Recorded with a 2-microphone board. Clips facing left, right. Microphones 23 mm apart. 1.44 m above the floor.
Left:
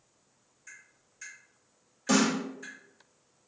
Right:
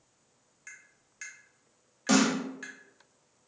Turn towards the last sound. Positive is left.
turn(degrees=-25)  # may be behind; listen again after turning